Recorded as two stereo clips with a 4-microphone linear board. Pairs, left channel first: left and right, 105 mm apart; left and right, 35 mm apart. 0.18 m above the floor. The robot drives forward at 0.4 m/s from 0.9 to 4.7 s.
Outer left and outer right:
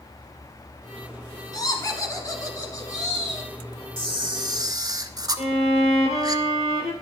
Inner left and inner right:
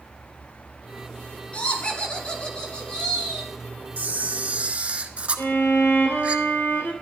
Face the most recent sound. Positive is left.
turn(degrees=75)  # may be behind; listen again after turning